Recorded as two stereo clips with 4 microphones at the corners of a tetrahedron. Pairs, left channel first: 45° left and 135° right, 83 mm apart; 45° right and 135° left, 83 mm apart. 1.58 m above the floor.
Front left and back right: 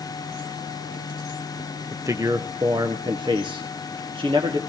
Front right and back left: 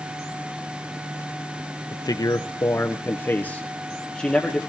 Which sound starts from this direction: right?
A man speaking, at 1.9 s.